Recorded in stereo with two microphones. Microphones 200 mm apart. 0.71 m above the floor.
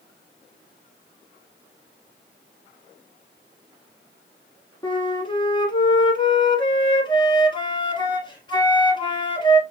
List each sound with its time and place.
4.8 s a flute: 25° left (ahead or behind), 1.4 m